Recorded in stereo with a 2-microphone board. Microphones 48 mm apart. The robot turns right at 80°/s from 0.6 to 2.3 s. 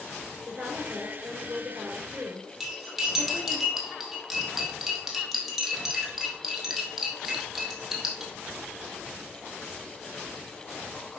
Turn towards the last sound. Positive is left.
turn(degrees=-5)  # may be behind; listen again after turning